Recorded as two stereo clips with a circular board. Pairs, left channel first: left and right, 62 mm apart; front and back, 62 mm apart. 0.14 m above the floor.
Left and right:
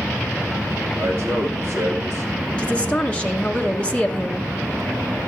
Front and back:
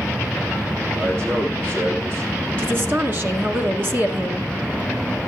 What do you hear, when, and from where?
1.0 s a man speaking: 140° right, 6 m; by 2.3 s 145° right, 5 m
2.6 s a woman speaking: 150° left, 1.8 m